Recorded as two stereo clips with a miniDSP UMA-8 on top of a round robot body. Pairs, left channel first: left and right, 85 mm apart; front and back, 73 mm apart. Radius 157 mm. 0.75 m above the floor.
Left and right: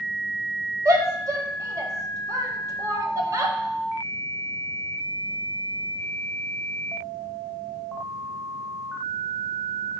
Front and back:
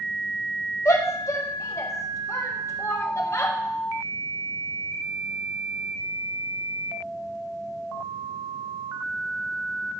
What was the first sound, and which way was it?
A shout, 45° right.